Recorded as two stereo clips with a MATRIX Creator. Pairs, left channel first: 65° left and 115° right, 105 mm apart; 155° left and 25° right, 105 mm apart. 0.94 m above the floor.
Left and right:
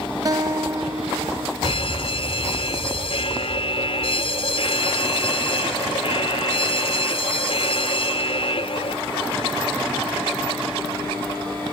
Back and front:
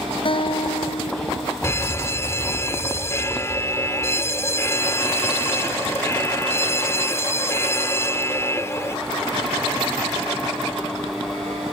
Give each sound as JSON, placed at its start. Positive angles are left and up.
{"t": 0.2, "sound": "a guitar", "azimuth_deg": -165}
{"t": 1.6, "sound": "a fire alarm", "azimuth_deg": 95}